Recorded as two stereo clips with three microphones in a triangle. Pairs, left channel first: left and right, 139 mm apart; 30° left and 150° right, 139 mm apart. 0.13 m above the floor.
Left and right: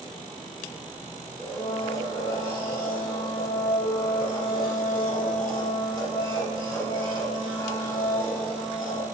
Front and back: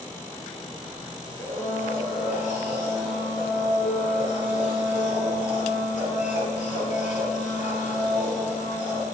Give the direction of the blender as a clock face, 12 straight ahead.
11 o'clock.